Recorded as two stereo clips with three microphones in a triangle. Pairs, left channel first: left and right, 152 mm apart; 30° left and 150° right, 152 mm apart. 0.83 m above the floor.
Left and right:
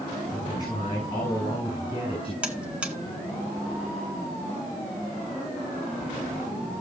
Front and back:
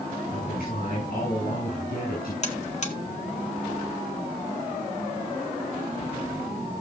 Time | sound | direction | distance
0.3 | a man speaking | 25° left | 7 m
2.4 | a buzzer | 10° right | 1.8 m